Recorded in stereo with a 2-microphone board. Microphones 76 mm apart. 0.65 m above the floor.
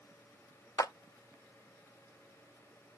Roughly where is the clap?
Left.